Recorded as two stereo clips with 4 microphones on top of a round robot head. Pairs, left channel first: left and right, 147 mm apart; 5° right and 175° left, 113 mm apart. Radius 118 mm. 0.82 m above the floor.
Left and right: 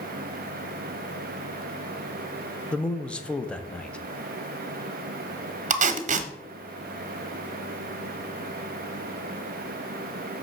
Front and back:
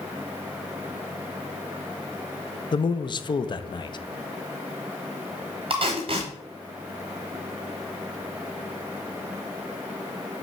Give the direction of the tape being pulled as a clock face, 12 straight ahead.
4 o'clock.